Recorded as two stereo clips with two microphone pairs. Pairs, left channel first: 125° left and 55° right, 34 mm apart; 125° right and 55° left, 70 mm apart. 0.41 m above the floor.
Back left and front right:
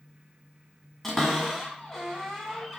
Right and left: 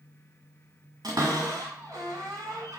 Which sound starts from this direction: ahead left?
A cupboard door, at 1.0 s.